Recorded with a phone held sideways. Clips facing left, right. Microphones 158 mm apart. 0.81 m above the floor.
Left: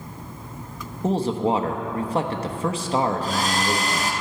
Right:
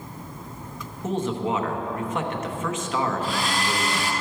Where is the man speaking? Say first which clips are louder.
Left 4 dB; 35° left (ahead or behind), 1.0 m.